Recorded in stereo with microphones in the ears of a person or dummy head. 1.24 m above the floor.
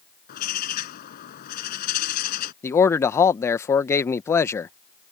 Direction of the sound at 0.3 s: 60° left (ahead or behind).